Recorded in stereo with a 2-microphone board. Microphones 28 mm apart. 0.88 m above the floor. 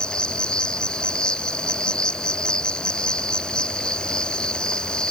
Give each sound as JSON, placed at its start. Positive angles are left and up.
{"t": 0.0, "sound": "an insect", "side_deg": 35}